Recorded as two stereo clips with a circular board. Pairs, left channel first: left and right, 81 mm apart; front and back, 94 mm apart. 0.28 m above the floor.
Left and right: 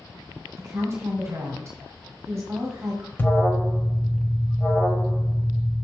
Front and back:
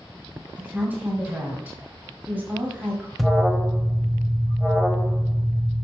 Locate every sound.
0.6 s a woman speaking: 120° right, 1.7 m
3.2 s an alarm: 85° left, 1.3 m